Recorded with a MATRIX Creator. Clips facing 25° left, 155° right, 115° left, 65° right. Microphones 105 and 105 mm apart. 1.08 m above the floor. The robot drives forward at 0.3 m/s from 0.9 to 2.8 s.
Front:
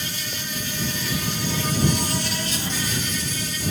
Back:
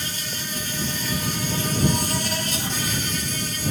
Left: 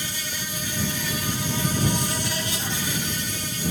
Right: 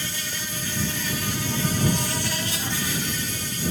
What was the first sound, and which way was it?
An insect, straight behind.